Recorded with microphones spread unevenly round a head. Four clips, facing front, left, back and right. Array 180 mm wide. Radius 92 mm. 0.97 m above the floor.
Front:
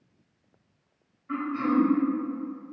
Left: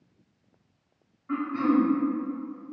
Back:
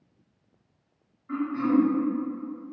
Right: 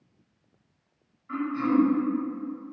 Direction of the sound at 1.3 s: 95° left.